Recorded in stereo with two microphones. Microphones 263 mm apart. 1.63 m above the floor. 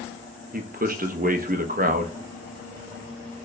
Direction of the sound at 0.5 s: 35° right (ahead or behind).